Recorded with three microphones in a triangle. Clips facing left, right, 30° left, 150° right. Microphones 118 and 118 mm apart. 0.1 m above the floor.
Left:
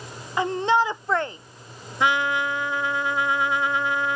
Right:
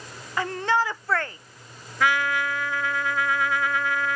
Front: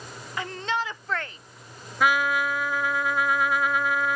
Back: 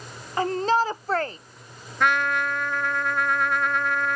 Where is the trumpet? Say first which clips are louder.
Left 1 dB, even; 105° left.